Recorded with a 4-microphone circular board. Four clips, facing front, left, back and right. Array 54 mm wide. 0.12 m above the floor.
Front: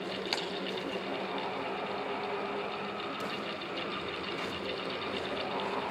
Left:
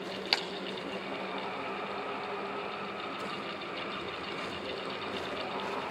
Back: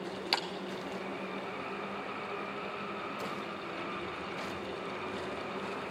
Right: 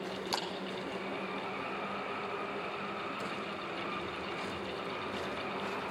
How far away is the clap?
About 2 m.